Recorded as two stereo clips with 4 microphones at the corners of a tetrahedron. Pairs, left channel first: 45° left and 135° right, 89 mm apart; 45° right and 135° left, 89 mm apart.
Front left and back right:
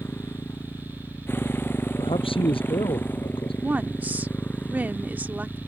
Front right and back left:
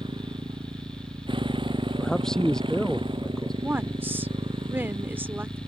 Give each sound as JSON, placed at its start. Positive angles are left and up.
{"t": 0.0, "sound": "a motorcycle", "azimuth_deg": 110}
{"t": 2.0, "sound": "a man speaking", "azimuth_deg": 40}
{"t": 3.6, "sound": "a woman speaking", "azimuth_deg": 170}